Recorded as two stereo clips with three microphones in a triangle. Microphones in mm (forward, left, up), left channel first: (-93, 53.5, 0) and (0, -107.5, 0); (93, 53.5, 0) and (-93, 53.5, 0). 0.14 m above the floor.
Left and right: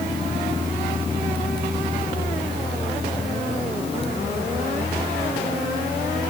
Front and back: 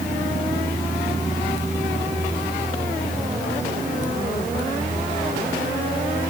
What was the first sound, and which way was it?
Only background noise.